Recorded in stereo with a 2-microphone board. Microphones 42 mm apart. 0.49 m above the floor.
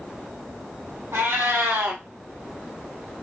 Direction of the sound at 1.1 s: 80° right.